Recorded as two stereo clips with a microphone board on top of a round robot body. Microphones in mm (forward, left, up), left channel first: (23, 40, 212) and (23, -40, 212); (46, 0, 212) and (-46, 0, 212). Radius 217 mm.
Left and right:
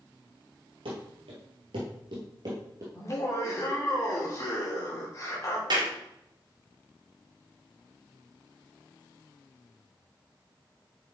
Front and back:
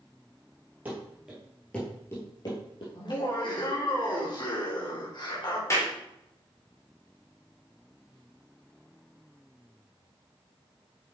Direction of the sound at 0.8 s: 110° right.